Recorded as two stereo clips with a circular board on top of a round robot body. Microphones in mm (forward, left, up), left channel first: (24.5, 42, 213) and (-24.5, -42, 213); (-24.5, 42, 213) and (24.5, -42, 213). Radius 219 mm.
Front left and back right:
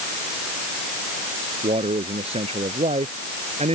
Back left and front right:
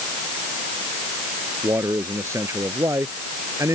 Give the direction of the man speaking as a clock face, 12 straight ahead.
4 o'clock.